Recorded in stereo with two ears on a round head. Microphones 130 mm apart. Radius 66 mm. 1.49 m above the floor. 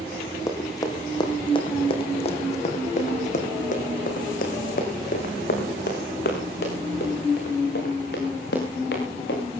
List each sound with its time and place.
0.5 s running footsteps: 20° left (ahead or behind), 4 m; by 9.5 s 80° left, 8.5 m